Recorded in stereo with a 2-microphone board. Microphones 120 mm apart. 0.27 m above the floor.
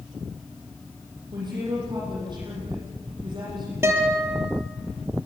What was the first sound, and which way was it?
A woman speaking, 40° right (ahead or behind).